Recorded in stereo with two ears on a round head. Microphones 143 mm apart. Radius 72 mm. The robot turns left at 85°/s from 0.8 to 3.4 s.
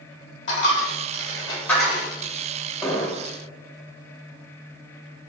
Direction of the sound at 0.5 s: 80° left.